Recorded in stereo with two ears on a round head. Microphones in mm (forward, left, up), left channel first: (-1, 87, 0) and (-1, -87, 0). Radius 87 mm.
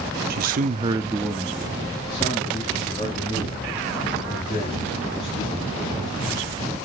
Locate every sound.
0.3 s a man speaking: 50° right (ahead or behind), 0.9 m; by 6.4 s 40° left (ahead or behind), 5.5 m